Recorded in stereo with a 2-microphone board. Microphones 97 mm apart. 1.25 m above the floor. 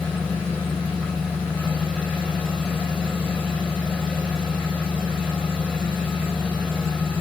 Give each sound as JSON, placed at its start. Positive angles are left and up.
{"t": 0.0, "sound": "an engine running", "side_deg": -10, "distance_m": 5.5}